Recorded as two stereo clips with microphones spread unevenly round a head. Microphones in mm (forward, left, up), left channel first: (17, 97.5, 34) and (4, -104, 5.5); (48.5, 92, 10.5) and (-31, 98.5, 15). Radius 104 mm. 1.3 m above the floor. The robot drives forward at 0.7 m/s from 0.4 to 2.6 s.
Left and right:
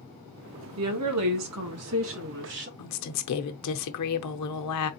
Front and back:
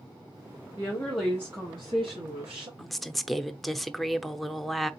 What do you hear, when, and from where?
0.8 s a woman speaking: 80° right, 1.1 m; by 2.7 s 135° right, 1.5 m
2.8 s a woman speaking: 85° left, 0.8 m